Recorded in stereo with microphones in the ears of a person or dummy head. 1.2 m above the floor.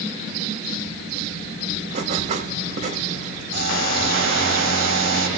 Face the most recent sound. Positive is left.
turn(degrees=-60)  # may be behind; listen again after turning